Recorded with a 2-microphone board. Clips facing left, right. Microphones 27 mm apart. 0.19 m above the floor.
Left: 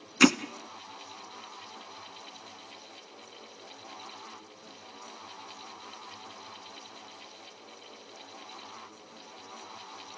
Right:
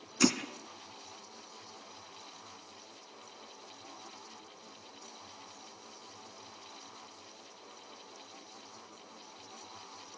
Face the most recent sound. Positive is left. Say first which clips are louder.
# left 7 dB
turn(degrees=50)  # may be behind; listen again after turning